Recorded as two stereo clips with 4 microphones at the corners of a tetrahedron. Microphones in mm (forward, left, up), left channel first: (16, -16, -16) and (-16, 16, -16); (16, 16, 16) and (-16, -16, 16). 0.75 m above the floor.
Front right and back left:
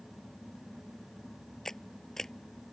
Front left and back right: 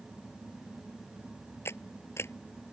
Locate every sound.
1.6 s a camera shutter: 35° left